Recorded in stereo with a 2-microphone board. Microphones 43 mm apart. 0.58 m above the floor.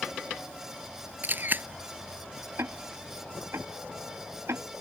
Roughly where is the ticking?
Right.